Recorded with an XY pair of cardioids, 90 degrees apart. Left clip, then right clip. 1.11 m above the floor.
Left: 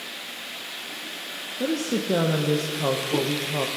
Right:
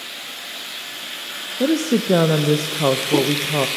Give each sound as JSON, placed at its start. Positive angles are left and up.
{"t": 1.6, "sound": "a woman speaking", "azimuth_deg": -50, "distance_m": 0.5}